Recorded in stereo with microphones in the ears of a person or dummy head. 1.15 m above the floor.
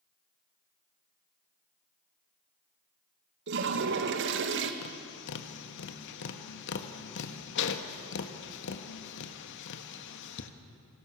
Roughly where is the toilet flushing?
Right.